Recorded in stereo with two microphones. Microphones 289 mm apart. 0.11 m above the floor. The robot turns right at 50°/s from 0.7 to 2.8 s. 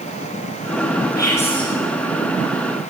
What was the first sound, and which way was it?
Whispering, 15° left (ahead or behind).